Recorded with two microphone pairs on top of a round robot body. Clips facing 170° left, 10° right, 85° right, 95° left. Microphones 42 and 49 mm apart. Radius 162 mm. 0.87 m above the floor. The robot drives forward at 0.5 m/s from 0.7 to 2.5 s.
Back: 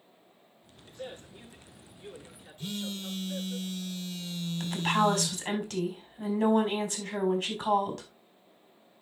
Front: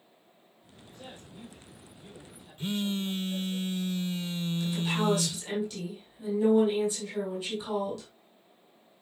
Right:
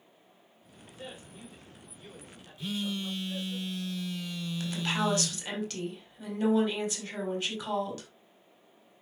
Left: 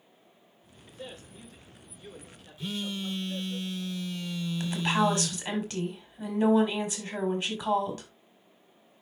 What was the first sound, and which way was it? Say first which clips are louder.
A man speaking: back 5 dB, left 1 dB; 165° right.